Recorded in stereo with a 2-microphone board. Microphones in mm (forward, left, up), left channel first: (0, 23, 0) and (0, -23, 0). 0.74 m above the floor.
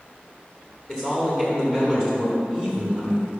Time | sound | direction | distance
0.9 | a man speaking | 15° left (ahead or behind) | 1.4 m